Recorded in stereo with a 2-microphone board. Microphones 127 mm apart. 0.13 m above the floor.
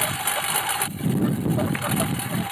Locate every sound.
0.0 s a lawn mower: 5° left (ahead or behind)